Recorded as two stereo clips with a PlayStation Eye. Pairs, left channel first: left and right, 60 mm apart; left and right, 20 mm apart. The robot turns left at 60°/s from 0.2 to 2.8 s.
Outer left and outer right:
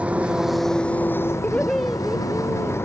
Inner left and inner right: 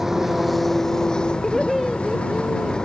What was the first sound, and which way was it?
An engine running, 160° right.